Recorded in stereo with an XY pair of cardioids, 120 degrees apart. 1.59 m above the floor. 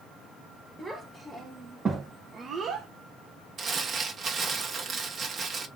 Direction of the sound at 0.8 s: 5° right.